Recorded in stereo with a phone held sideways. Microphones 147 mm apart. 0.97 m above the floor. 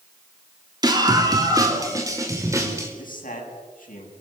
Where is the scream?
30° right (ahead or behind), 2.5 m; by 2.9 s 20° right (ahead or behind), 4.5 m.